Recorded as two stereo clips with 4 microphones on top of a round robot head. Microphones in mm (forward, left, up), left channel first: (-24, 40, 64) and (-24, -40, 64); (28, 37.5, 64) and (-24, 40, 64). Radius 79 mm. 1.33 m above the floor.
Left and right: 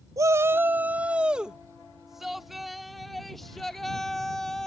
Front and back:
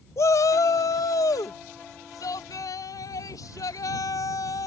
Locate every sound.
0.2 s a shout: 40° right; by 4.7 s 5° left